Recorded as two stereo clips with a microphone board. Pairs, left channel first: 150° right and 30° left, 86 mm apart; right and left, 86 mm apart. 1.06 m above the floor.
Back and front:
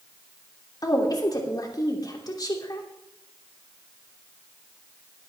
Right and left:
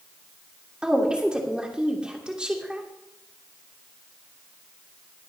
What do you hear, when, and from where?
0.8 s a woman speaking: 170° left, 2.5 m